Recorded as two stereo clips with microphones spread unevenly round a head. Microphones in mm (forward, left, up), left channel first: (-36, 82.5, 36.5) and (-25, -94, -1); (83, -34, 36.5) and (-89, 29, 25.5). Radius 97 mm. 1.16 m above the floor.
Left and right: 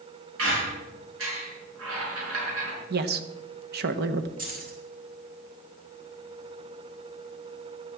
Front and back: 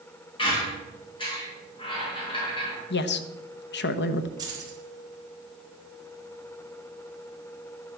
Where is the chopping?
No chopping in this recording.